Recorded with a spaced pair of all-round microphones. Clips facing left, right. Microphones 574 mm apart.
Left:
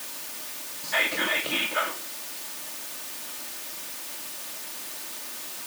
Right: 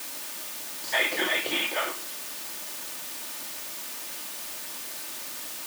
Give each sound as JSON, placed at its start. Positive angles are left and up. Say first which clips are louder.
{"t": 0.8, "sound": "whispering", "louder": "right 1 dB", "side_deg": 35, "distance_m": 1.2}